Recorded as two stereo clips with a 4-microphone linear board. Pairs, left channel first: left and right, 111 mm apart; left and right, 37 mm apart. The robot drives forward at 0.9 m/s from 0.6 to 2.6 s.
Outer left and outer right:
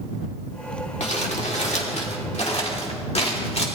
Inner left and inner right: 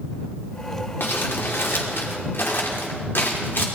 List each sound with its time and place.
1.0 s crumpling: 70° left (ahead or behind), 3 m; by 3.7 s 65° left (ahead or behind), 3 m